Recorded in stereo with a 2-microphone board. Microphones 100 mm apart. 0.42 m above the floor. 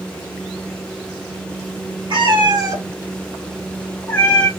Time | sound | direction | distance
2.1 | a cat meowing | 55° right (ahead or behind) | 0.9 m